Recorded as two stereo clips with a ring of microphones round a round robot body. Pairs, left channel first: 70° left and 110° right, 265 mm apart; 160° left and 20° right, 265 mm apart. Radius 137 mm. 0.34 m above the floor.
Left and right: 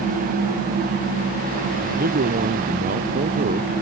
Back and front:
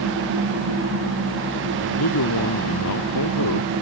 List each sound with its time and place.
1.8 s a man speaking: 170° right; by 3.7 s 175° right